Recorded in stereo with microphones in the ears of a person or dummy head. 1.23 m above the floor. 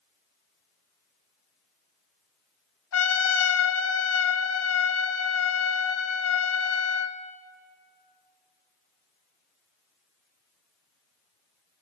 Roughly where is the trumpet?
Left.